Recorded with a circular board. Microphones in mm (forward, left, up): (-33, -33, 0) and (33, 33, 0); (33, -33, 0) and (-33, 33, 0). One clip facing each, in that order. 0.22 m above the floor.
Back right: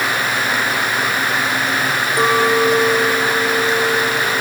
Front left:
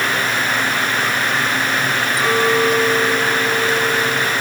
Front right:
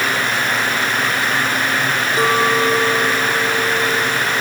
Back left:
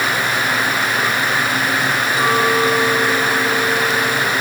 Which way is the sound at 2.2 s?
100° right.